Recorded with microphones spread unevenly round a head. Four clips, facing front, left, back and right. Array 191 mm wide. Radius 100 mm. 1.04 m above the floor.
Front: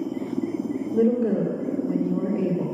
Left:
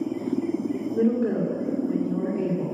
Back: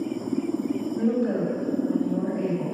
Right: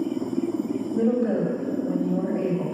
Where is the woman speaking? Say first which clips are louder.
Right 1 dB, front 5 dB; 20° left, 2.5 m.